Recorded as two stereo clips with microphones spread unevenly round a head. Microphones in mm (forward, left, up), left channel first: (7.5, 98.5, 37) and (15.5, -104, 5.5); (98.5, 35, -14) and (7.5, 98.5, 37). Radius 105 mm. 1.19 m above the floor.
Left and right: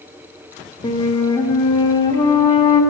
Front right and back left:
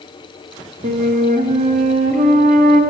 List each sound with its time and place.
0.8 s a flute: 160° left, 1.9 m